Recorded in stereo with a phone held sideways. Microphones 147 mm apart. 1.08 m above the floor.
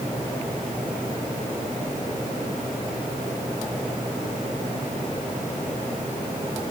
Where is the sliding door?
I don't hear a sliding door.